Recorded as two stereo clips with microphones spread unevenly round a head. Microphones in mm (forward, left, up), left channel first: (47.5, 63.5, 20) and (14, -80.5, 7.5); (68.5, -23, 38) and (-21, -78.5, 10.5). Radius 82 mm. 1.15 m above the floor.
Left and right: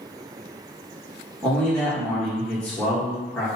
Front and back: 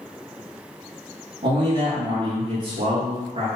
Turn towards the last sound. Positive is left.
turn(degrees=160)